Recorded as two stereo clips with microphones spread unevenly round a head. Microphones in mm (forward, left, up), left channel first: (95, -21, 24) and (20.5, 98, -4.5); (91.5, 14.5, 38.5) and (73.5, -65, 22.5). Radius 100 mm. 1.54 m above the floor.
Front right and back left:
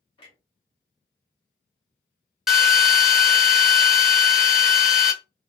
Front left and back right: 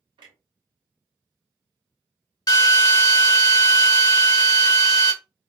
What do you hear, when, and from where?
0.2 s a clunk: 95° right, 0.8 m
2.5 s a drill: 35° left, 0.8 m